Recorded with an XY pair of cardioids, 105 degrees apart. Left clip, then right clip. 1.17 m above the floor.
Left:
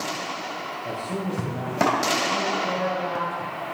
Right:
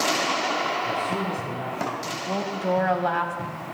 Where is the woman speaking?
70° right, 4 m.